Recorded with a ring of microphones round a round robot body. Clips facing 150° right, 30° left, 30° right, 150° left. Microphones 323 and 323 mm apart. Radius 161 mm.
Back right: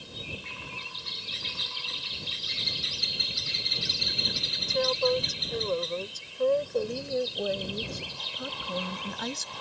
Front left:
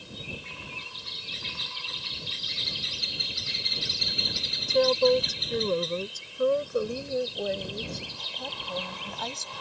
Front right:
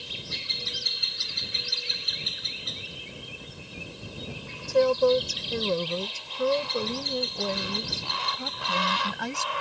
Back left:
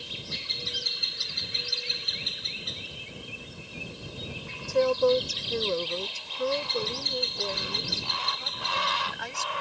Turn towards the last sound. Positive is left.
turn(degrees=-80)